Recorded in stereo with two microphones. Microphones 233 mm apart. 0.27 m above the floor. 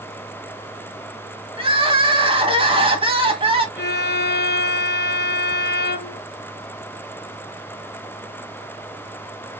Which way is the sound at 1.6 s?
25° right (ahead or behind).